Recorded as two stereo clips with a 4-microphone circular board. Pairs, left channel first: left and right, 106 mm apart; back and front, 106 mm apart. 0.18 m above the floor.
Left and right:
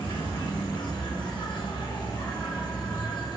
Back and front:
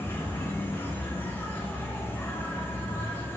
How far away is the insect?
About 3.5 m.